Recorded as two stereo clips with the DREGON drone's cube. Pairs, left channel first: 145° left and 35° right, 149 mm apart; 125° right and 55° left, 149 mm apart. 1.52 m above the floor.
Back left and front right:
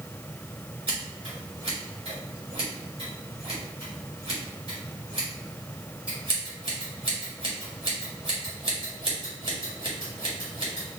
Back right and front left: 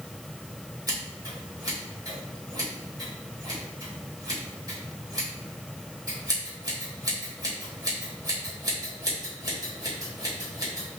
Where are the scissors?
5° left, 1.9 m.